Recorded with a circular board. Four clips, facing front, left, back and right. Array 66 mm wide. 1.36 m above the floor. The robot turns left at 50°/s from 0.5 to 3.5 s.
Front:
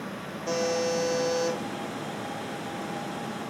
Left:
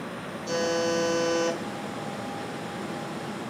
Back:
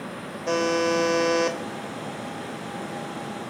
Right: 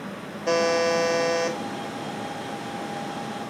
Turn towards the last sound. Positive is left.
turn(degrees=100)